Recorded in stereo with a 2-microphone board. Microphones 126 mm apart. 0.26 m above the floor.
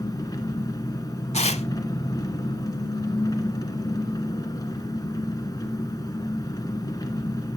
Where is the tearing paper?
60° left (ahead or behind), 0.7 m.